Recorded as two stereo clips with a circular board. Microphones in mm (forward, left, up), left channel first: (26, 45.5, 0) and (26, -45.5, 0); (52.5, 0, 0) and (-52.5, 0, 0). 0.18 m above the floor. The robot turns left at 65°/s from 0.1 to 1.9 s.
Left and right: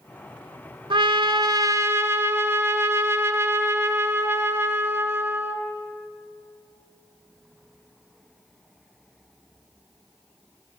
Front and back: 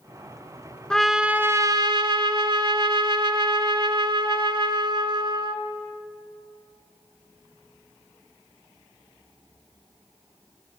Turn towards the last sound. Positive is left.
turn(degrees=-145)